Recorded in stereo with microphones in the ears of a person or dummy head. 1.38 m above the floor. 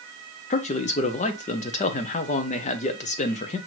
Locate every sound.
0.5 s a man speaking: 30° left (ahead or behind), 0.6 m